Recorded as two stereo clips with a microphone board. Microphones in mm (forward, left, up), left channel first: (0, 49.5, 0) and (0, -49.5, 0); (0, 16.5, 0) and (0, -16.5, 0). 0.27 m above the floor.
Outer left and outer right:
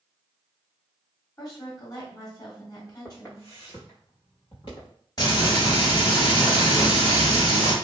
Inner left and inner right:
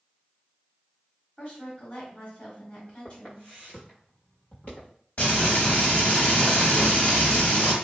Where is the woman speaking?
40° left (ahead or behind), 1.6 m.